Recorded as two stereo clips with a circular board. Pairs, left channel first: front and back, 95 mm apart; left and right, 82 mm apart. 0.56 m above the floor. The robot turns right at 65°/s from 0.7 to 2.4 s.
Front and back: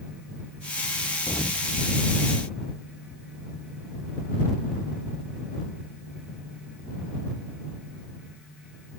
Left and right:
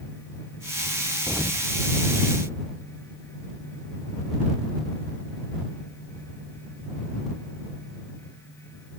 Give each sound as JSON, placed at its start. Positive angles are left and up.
{"t": 1.3, "sound": "an explosion", "azimuth_deg": -25}